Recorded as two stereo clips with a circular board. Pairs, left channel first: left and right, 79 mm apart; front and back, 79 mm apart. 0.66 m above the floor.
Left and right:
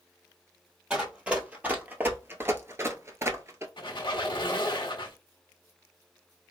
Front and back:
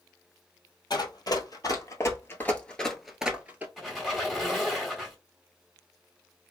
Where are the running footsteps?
15° right, 1.2 m; by 3.7 s 125° right, 0.8 m.